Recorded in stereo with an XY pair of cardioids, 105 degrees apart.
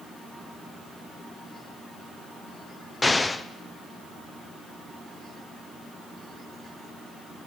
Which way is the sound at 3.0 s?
20° left.